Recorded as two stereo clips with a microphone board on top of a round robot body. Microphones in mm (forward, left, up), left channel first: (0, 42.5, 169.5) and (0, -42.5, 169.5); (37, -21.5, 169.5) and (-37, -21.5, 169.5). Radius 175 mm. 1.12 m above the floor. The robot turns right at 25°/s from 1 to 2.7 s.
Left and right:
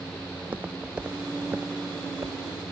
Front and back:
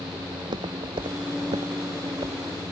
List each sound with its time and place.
0.3 s footsteps: 160° right; by 2.4 s 140° right